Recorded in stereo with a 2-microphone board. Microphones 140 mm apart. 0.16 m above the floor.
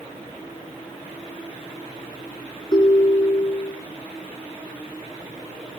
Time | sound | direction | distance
2.7 | a ringtone | 30° left (ahead or behind) | 0.6 m